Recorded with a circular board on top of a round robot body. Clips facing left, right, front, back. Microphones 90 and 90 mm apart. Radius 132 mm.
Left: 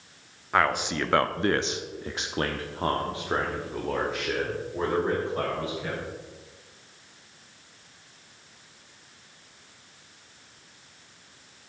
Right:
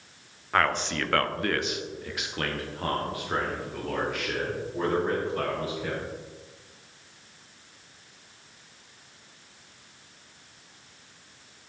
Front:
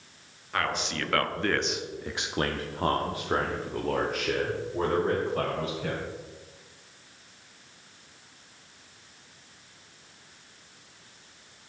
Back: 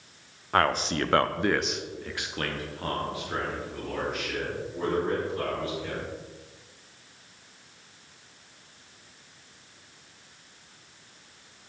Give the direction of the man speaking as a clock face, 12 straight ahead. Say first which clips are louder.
Left 1 dB, back 6 dB; 6 o'clock.